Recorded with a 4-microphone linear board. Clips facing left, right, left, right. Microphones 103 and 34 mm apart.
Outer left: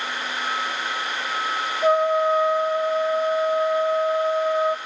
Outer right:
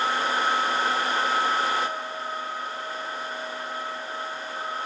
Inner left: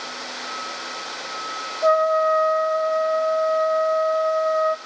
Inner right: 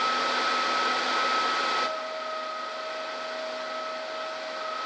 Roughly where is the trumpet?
Left.